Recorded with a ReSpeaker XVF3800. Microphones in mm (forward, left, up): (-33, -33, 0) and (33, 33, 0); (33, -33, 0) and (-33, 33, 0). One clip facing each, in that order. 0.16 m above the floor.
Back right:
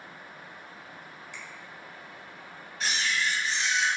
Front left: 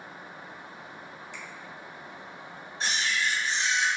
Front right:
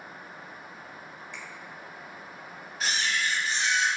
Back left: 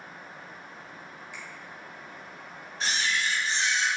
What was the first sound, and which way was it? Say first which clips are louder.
A finger snap: front left 1 dB, front right 1 dB; 150° right.